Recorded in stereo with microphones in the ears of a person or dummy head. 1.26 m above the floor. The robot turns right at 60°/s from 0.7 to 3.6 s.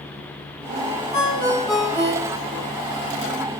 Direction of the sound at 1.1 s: 145° left.